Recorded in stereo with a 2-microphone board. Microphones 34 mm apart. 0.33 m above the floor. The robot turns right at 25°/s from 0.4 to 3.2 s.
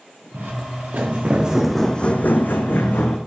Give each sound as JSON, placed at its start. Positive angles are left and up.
{"t": 0.3, "sound": "footsteps", "side_deg": -75, "distance_m": 1.8}